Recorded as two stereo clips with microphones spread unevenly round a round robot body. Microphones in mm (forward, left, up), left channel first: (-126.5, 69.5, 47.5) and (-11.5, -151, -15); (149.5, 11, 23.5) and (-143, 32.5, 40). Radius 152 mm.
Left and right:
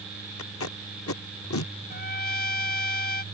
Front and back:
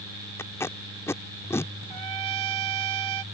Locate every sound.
0.4 s tape being pulled: 80° left
1.9 s a trumpet: 170° left